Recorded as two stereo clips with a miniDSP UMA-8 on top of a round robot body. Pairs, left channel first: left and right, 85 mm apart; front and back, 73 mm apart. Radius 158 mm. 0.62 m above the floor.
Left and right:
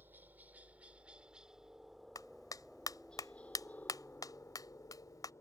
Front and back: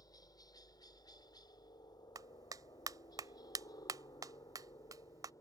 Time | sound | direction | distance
0.0 | a helicopter | 25° right | ?
2.1 | a clap | 140° left | ?